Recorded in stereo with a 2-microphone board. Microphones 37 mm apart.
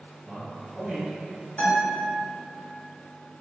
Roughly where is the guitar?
Left.